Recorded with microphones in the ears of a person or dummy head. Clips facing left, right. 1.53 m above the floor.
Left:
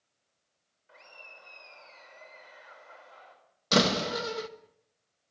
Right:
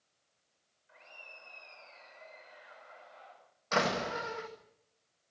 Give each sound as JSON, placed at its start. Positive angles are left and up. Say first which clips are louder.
{"t": 0.9, "sound": "laughter", "louder": "left 3 dB", "side_deg": 55, "distance_m": 5.0}
{"t": 3.7, "sound": "a door slam", "louder": "left 6 dB", "side_deg": 45, "distance_m": 1.7}